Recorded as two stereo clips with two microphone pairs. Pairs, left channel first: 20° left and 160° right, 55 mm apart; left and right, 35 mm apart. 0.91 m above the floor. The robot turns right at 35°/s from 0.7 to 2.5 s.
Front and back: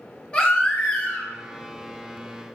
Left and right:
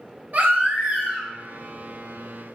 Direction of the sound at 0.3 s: 45° right.